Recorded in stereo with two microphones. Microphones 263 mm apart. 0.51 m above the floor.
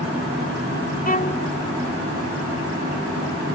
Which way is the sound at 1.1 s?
35° left (ahead or behind).